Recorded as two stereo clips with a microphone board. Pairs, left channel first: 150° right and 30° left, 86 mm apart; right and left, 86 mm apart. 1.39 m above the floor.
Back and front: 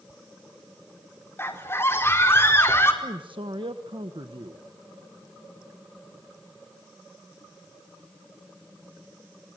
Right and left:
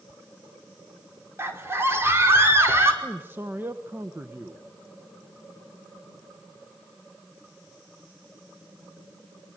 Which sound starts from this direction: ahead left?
A man speaking, at 3.0 s.